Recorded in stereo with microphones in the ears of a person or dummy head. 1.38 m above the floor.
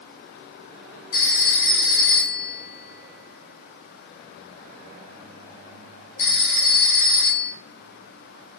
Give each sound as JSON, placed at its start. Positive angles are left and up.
{"t": 1.1, "sound": "a phone ringing", "side_deg": 65, "distance_m": 2.5}